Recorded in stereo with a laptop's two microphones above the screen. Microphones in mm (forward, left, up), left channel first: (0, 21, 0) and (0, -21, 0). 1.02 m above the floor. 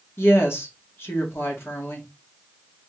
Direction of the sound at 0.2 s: 80° left.